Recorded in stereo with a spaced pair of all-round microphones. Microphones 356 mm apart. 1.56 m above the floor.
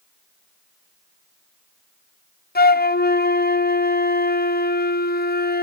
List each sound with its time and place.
2.5 s a flute: 25° left (ahead or behind), 0.6 m